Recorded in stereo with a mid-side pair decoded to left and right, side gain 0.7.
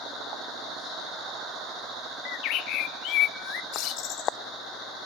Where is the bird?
60° left, 0.7 m.